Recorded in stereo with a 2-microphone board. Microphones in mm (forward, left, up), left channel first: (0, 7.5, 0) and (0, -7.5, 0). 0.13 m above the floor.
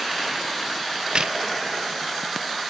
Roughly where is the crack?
Right.